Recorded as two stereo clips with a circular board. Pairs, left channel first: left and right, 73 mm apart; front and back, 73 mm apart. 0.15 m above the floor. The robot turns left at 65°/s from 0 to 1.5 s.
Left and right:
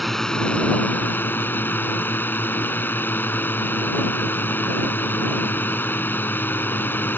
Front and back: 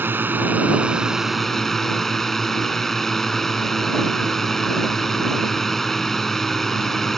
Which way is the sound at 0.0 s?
Straight behind.